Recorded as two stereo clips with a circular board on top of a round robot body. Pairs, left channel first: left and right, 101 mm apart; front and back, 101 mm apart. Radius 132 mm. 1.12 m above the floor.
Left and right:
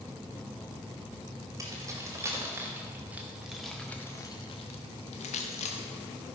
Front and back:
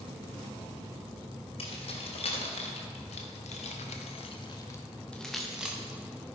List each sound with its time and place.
1.6 s keys jangling: 30° right, 1.6 m; by 6.4 s 105° left, 1.2 m